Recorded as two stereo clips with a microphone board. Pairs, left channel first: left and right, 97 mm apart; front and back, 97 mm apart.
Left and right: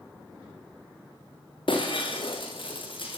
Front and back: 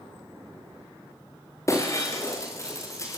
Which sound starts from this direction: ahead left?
Breaking glass, at 1.7 s.